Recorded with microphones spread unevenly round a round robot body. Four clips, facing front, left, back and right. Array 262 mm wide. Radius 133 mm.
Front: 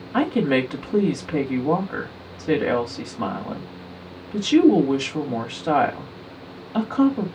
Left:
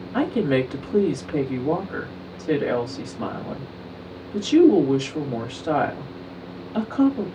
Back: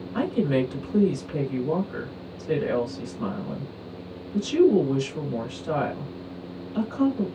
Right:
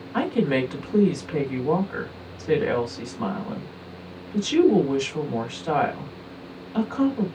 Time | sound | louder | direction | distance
0.1 | a woman speaking | left 1 dB, front 4 dB | 10° left | 2.5 m